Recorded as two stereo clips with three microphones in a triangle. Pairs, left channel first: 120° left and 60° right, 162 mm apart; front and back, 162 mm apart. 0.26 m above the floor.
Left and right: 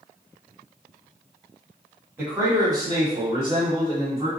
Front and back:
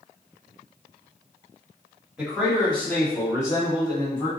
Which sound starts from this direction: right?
A man speaking, at 2.2 s.